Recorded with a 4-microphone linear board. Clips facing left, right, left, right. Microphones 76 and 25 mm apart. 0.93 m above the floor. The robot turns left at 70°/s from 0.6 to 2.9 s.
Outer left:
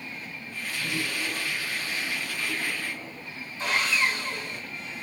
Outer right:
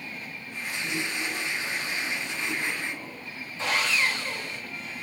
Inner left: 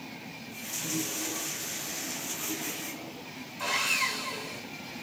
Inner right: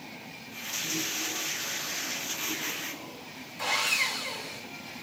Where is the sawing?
85° right, 7 m.